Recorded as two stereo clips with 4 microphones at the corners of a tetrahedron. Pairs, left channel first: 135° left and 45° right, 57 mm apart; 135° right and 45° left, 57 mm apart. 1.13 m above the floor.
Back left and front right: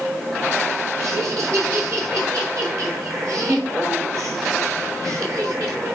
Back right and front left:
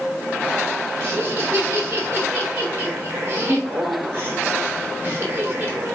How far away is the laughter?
About 3.5 m.